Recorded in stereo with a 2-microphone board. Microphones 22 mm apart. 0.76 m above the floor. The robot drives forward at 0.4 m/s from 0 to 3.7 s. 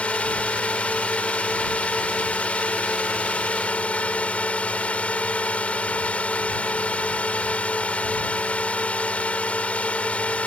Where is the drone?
60° left (ahead or behind).